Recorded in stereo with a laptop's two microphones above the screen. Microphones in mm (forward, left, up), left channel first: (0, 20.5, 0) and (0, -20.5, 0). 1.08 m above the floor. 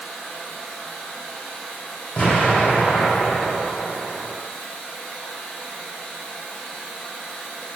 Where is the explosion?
30° left (ahead or behind), 1.6 m.